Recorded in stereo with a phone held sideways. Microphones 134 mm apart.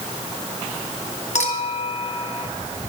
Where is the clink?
55° left (ahead or behind), 2.5 m.